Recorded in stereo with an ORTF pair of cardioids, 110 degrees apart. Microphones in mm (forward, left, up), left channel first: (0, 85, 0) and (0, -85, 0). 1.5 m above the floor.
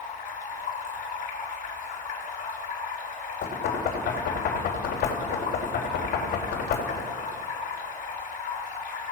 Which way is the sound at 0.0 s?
50° left.